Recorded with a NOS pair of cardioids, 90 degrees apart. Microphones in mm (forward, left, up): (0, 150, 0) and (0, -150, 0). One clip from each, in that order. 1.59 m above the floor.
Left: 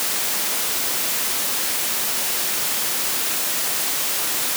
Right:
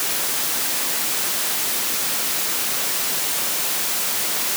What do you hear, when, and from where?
Only background noise.